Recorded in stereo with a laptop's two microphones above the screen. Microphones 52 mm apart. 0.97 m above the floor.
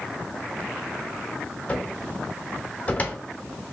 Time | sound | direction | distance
1.7 | a cupboard door | 30° left (ahead or behind) | 0.7 m